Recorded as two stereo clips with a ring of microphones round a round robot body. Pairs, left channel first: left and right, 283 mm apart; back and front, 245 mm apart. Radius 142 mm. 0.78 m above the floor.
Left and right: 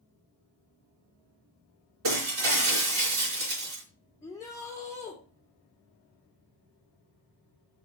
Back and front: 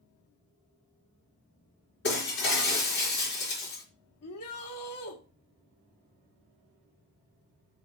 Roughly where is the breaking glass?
Behind right.